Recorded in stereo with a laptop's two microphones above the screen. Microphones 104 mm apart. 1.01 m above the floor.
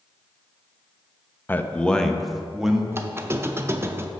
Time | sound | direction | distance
1.5 | a man speaking | 20° left (ahead or behind) | 0.6 m
2.9 | a squeak | 25° right (ahead or behind) | 0.5 m